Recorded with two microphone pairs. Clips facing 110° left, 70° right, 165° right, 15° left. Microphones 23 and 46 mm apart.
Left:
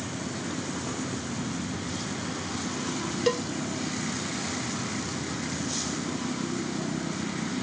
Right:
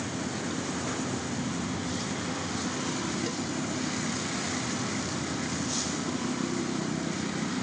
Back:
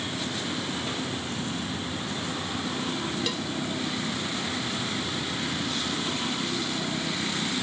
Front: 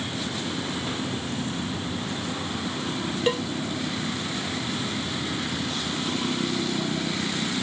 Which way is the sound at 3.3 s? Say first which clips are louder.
Left 7 dB, front 7 dB; 70° left.